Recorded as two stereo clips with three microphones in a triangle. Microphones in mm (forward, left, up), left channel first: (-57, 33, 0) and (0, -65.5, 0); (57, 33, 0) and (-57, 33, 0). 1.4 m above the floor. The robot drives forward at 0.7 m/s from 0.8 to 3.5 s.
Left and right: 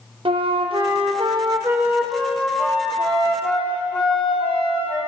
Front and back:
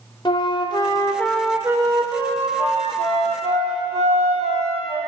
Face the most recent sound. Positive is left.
turn(degrees=-165)